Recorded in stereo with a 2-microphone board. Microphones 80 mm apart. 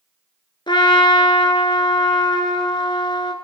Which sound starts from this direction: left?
A trumpet, at 0.7 s.